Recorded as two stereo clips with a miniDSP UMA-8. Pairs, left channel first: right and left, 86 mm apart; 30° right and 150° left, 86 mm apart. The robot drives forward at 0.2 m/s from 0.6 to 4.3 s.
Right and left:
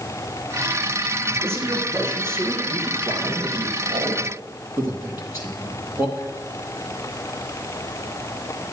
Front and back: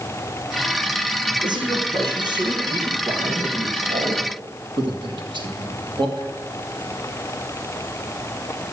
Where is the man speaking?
145° left, 3 m; by 6.3 s 150° left, 3 m.